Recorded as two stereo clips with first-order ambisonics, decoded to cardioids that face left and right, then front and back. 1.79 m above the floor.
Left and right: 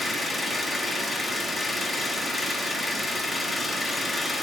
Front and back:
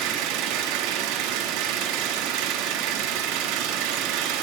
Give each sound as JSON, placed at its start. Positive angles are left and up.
{"t": 0.0, "sound": "an engine running", "azimuth_deg": 175, "distance_m": 1.4}